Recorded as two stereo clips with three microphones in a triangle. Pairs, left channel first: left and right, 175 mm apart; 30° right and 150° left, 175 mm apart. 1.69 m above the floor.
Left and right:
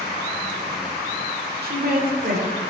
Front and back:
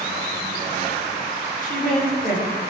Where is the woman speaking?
70° right, 5 m; by 2.7 s 75° right, 6 m.